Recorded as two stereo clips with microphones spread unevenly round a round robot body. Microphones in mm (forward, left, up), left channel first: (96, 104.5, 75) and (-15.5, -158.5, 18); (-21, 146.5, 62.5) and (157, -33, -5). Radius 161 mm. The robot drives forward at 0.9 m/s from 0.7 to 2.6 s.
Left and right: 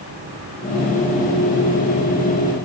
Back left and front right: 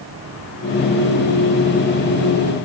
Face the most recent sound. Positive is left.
No sound to turn to.